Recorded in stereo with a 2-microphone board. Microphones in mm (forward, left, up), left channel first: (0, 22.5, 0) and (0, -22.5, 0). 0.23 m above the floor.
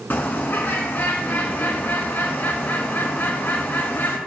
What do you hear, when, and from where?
0.1 s a bird: 45° left (ahead or behind), 1.4 m